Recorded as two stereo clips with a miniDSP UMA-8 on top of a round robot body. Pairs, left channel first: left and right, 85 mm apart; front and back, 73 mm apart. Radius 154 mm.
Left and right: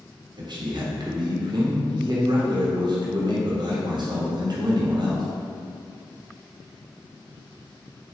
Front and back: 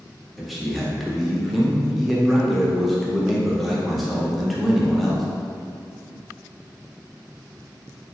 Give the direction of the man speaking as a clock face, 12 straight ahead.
3 o'clock.